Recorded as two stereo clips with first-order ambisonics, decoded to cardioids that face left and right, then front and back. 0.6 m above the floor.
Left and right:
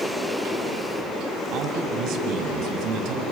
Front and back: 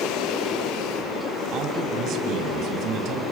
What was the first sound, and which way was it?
A man speaking, 130° right.